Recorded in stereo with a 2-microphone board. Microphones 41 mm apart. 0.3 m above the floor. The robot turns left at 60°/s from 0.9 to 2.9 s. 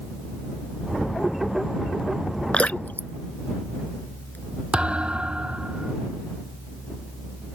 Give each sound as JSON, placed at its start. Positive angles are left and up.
{"t": 2.5, "sound": "dripping", "side_deg": 25}
{"t": 4.7, "sound": "a thud", "side_deg": -25}